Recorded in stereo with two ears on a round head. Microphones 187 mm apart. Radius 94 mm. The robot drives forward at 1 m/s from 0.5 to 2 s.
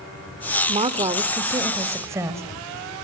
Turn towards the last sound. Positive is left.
turn(degrees=-15)  # may be behind; listen again after turning